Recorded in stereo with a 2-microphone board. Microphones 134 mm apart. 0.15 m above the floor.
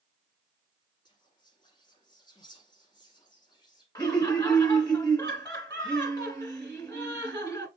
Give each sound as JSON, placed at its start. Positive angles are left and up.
{"t": 1.1, "sound": "whispering", "side_deg": 35, "distance_m": 1.7}
{"t": 4.0, "sound": "laughter", "side_deg": 30, "distance_m": 1.4}